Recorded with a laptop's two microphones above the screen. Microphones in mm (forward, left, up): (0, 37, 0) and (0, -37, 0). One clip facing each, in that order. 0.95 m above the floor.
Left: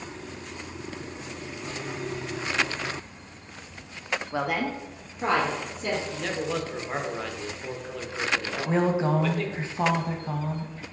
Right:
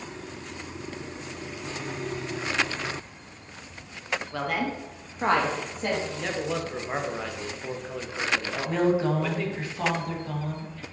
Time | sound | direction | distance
4.3 | a woman speaking | 20° left (ahead or behind) | 0.5 m
6.1 | a man speaking | 5° right (ahead or behind) | 0.7 m
8.7 | a woman speaking | 25° left (ahead or behind) | 0.7 m